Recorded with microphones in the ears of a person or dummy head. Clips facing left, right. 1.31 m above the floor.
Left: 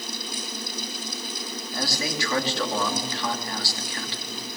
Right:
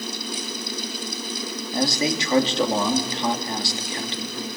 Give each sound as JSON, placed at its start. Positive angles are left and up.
{"t": 1.7, "sound": "a man speaking", "side_deg": -15, "distance_m": 2.5}